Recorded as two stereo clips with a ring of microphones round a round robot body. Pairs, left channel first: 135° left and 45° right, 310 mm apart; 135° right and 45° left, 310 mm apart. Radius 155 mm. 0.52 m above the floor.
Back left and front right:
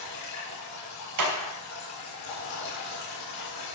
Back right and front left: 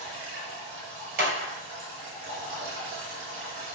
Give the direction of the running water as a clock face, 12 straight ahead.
9 o'clock.